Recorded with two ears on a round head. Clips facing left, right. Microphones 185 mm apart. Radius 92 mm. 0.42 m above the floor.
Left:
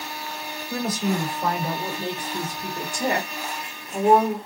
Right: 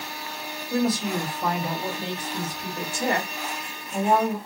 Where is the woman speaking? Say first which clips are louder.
Right 1 dB; 5° left (ahead or behind), 1.9 m; by 4.4 s 20° left (ahead or behind), 1.4 m.